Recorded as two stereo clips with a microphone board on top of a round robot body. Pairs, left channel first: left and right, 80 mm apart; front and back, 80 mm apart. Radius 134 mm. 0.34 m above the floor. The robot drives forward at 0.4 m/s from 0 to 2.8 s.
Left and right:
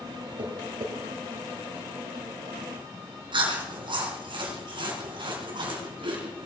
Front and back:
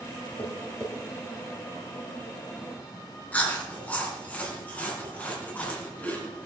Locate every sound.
0.4 s tapping: 70° right, 3 m
3.3 s chewing: 75° right, 3.5 m